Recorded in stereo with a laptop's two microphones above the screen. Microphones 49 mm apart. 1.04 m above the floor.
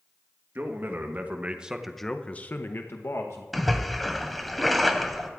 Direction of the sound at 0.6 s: 45° right (ahead or behind).